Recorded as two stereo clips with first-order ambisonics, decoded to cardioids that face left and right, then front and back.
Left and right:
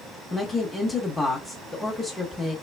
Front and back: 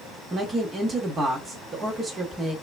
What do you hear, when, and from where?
0.3 s a woman speaking: 145° left, 0.9 m